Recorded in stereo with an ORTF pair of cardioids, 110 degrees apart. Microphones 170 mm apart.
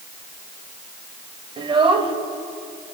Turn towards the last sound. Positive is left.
turn(degrees=-30)